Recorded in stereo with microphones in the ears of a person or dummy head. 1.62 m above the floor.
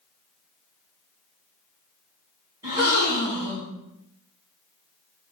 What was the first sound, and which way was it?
A gasp, 20° right (ahead or behind).